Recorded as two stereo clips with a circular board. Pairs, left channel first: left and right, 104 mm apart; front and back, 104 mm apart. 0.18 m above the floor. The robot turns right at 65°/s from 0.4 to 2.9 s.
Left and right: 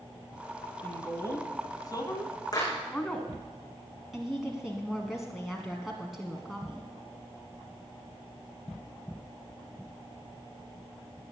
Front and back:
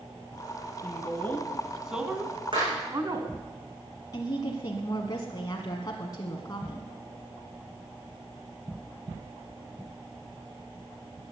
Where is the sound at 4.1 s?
Straight ahead, 1.4 m.